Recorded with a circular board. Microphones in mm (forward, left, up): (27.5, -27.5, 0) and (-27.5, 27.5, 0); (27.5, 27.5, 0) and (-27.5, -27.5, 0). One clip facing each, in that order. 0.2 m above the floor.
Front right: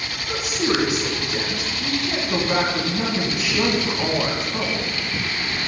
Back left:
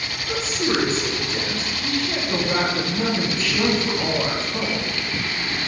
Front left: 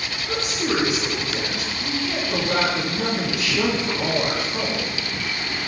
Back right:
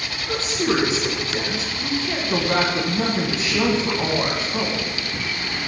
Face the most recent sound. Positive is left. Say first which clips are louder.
# front right 1 dB, back right 2 dB
turn(degrees=-105)